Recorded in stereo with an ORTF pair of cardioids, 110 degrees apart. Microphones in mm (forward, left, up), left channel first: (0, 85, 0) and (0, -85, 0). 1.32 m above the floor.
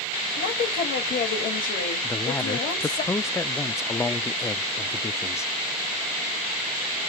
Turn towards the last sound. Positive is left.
turn(degrees=15)